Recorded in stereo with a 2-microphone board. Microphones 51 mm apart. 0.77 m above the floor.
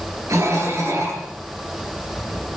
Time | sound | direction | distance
0.3 | a cough | 70° right (ahead or behind) | 10 m